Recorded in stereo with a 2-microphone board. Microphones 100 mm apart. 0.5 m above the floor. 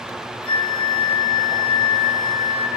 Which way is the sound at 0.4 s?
70° left (ahead or behind).